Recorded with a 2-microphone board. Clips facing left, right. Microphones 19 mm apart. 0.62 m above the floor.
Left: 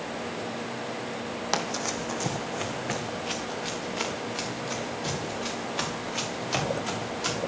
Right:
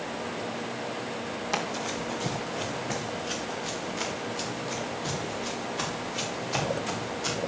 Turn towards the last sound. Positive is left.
turn(degrees=80)